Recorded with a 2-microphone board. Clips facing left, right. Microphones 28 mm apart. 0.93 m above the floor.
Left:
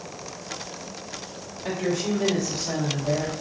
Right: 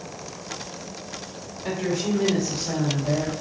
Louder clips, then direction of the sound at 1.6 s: Even; 20° right (ahead or behind).